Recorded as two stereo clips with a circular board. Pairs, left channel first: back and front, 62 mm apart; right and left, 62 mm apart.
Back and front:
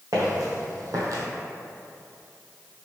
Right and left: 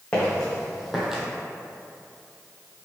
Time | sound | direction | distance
0.1 | footsteps | 15° right | 1.8 m